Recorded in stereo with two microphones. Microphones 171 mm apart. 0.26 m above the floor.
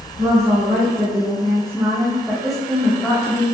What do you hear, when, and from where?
0.2 s a woman speaking: 45° right (ahead or behind), 1.5 m; by 3.4 s 20° left (ahead or behind), 1.0 m